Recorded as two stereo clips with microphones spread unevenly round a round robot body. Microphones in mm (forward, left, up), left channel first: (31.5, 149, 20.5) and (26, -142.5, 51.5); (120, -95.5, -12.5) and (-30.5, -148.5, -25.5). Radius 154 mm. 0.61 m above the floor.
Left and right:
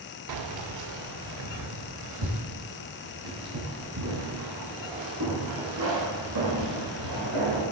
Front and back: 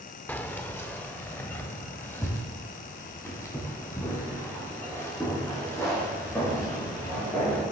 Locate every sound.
0.3 s keys jangling: 60° right, 0.9 m; by 7.6 s 55° right, 6 m